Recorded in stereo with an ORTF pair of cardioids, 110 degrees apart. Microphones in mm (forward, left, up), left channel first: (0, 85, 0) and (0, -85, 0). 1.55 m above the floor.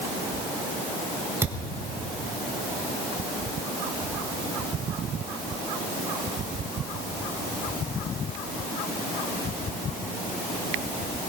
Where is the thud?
15° right, 3.5 m.